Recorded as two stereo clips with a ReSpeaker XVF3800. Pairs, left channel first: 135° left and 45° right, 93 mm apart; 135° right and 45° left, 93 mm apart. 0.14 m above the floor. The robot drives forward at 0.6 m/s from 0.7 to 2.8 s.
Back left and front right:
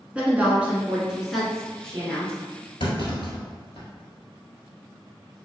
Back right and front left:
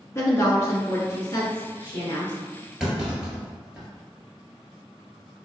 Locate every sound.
0.1 s a woman speaking: 110° right, 1.3 m; by 2.3 s 150° right, 1.8 m
2.8 s a clunk: 125° left, 1.4 m